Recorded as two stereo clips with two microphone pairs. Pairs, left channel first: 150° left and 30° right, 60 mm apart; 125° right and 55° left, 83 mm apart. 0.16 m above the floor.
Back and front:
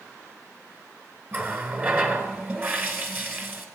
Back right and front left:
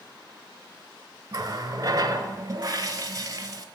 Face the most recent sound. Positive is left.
turn(degrees=20)